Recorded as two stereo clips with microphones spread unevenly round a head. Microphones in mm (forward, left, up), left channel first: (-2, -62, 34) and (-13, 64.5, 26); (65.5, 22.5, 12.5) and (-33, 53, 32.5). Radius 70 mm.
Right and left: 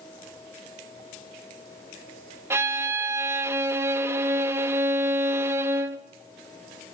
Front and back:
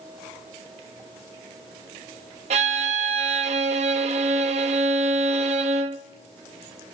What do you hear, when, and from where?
2.5 s a violin: 165° left, 0.8 m